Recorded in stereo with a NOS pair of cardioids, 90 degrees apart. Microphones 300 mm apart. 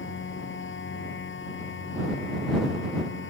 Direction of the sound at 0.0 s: 40° left.